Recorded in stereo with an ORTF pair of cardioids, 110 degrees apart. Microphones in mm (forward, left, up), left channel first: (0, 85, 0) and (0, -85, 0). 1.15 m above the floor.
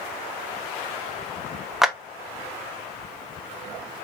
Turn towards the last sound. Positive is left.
turn(degrees=0)